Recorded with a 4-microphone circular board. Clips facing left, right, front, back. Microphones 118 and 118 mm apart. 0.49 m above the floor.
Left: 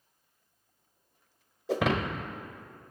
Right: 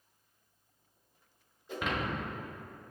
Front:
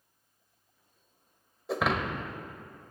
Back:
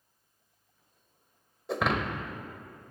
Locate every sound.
1.7 s breaking glass: 90° left, 0.8 m